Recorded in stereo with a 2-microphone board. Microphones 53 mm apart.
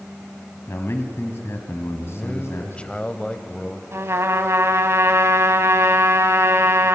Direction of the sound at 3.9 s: 60° right (ahead or behind).